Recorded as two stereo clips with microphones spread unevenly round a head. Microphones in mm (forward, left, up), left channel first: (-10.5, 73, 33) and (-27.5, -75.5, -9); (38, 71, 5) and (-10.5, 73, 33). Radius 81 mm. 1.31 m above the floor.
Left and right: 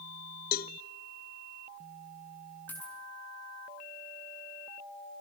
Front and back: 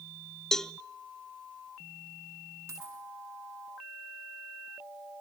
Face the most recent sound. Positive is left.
turn(degrees=160)